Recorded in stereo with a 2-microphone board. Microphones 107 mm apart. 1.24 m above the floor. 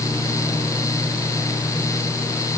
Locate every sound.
Only background noise.